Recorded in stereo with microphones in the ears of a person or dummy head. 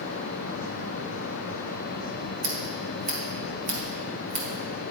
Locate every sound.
2.4 s scissors: 40° right (ahead or behind), 1.6 m